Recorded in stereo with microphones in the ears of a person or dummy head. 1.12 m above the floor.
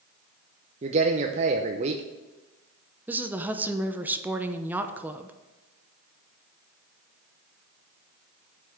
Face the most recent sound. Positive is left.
turn(degrees=-10)  # may be behind; listen again after turning